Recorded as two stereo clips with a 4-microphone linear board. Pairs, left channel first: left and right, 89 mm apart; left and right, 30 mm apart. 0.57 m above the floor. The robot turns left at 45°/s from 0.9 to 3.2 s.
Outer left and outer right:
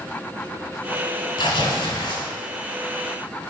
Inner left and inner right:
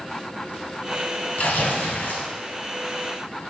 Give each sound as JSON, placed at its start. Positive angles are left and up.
{"t": 1.4, "sound": "tearing paper", "azimuth_deg": 120, "distance_m": 1.3}